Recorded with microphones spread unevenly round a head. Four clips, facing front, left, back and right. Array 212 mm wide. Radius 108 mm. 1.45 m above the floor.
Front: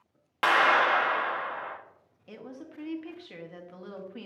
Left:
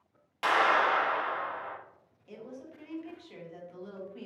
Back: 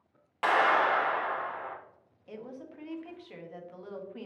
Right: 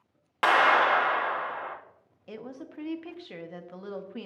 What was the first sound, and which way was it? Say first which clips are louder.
A clap: right 4 dB, front 2 dB; 45° right.